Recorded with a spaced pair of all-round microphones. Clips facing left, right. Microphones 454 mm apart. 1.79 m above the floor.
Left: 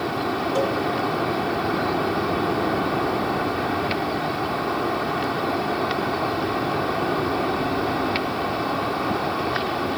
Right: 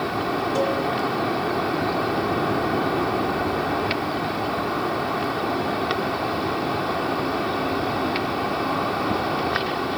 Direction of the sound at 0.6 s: 60° right (ahead or behind).